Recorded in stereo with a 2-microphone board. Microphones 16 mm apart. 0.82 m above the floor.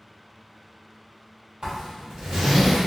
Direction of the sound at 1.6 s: 55° right (ahead or behind).